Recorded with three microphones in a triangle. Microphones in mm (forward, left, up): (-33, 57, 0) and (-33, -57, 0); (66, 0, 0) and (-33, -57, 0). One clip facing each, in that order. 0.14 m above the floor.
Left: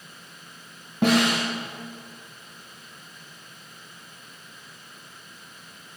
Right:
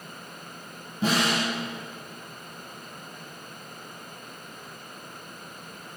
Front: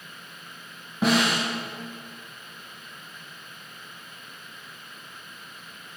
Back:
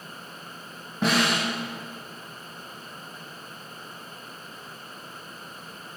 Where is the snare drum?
115° left, 3.5 m.